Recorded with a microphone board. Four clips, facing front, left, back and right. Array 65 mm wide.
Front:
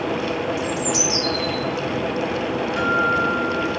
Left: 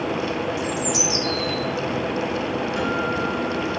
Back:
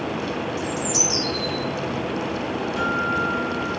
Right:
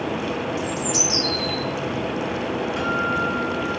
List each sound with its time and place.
0.6 s a bird: 20° right, 1.6 m
2.8 s a guitar: 15° right, 1.9 m